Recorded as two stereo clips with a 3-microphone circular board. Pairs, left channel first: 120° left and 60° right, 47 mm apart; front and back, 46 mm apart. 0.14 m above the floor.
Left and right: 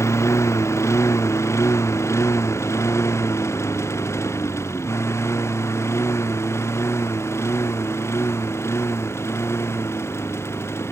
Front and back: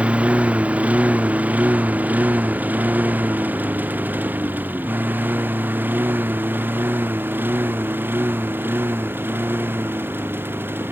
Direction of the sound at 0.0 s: 120° left.